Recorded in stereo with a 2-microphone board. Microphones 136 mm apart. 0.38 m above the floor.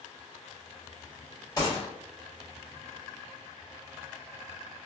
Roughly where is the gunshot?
Left.